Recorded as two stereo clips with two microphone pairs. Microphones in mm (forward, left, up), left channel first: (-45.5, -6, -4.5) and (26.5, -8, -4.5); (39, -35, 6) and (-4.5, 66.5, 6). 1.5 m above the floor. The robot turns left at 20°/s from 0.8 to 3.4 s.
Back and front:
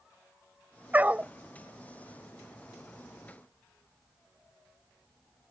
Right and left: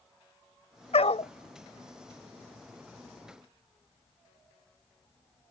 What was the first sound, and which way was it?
A dog barking, 65° right.